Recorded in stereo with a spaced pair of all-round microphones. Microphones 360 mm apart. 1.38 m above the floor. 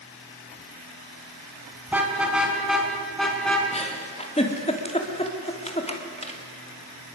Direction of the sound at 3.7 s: 15° left (ahead or behind).